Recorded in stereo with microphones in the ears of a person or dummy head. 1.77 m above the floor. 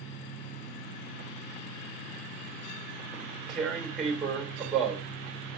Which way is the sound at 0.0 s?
70° left (ahead or behind).